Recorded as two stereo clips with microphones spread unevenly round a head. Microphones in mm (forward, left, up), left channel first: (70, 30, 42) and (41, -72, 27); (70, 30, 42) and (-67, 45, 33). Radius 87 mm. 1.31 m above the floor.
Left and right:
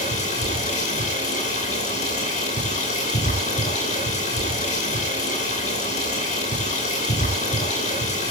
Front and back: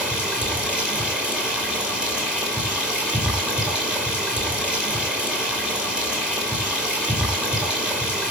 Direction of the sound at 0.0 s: 90° left.